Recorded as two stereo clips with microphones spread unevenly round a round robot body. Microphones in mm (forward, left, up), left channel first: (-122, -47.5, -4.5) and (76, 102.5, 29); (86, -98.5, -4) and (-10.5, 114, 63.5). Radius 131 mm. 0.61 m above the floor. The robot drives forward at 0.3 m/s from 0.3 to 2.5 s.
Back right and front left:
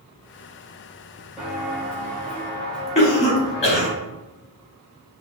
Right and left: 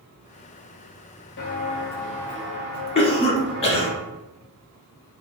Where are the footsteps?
40° right, 0.7 m; by 4.0 s 120° left, 1.5 m.